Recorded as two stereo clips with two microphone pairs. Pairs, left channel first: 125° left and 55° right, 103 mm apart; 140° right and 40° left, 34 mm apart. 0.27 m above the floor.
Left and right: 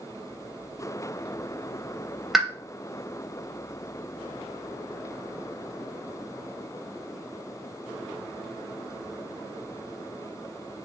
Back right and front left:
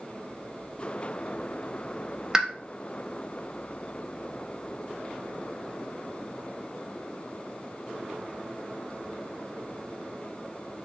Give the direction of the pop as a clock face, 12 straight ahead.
11 o'clock.